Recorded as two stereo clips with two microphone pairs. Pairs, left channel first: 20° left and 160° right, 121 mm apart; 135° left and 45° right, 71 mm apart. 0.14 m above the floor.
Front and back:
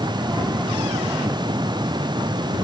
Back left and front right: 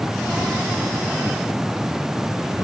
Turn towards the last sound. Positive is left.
No sound to turn to.